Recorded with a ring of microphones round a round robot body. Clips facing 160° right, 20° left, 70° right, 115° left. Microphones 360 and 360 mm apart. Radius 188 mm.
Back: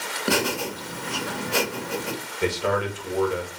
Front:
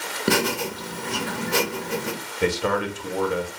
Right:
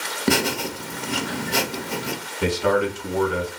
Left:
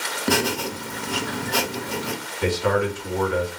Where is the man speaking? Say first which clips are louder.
Front 2 dB, right 1 dB; 15° right, 0.8 m.